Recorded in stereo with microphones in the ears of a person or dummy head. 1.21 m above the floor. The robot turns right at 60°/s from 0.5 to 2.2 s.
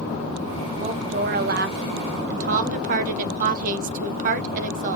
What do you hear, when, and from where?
0.8 s a woman speaking: 150° right, 0.6 m; by 5.0 s 65° right, 0.6 m